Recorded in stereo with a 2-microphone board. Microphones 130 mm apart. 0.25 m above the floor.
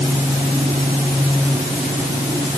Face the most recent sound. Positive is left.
No sound to turn to.